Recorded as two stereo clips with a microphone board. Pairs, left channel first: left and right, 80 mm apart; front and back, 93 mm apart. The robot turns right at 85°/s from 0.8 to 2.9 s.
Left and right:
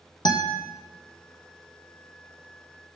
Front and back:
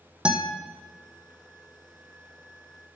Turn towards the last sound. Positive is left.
turn(degrees=-80)